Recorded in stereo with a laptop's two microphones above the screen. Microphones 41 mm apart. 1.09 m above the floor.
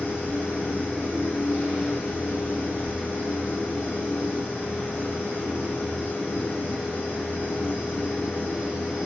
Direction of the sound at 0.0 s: 55° left (ahead or behind).